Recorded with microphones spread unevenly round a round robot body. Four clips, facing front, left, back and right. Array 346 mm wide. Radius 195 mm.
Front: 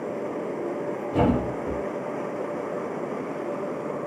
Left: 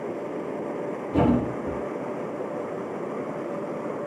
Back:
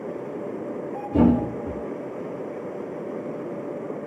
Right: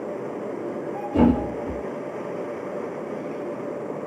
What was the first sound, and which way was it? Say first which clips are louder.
A thud: right 3 dB, back 4 dB; 155° left.